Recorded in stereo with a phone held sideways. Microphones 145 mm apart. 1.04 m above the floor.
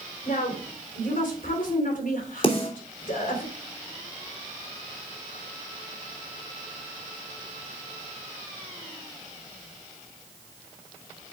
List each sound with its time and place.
0.2 s a woman speaking: 70° left (ahead or behind), 3.5 m
2.4 s a snare drum: 40° left (ahead or behind), 2.5 m